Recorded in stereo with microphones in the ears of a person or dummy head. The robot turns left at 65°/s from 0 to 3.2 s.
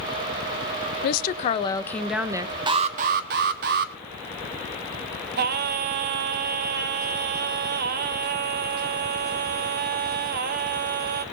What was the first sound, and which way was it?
A woman speaking, 65° left.